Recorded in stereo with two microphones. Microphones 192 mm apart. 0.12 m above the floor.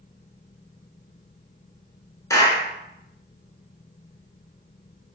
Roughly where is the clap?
Centre.